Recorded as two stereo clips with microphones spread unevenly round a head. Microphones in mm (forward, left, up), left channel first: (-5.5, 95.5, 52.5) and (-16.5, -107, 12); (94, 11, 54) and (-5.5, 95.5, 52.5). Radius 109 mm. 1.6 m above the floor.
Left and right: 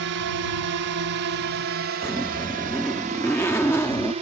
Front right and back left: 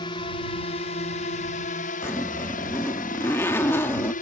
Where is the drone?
100° right; by 4.2 s 30° right.